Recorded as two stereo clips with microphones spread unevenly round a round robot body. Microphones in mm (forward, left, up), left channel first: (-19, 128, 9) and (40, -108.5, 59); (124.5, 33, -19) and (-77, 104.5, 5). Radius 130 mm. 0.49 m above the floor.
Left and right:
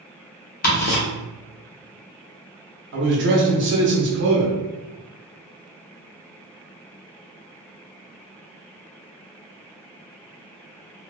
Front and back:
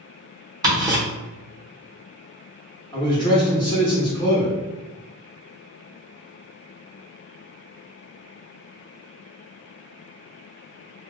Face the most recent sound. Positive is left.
turn(degrees=-60)